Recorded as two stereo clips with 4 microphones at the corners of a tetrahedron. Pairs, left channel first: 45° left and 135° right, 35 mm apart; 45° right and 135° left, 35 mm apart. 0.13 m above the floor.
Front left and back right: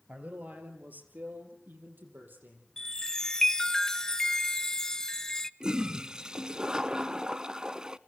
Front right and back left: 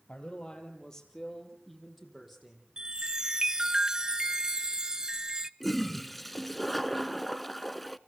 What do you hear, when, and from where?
0.1 s a man speaking: 95° right, 3.5 m; by 2.7 s 140° right, 6 m
2.8 s a chime: 100° left, 0.5 m
5.6 s a toilet flushing: 125° right, 0.6 m